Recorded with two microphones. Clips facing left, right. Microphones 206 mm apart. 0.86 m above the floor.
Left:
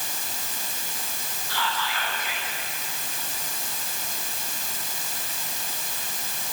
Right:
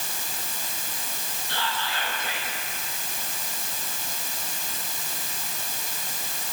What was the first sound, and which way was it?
Whispering, 30° right (ahead or behind).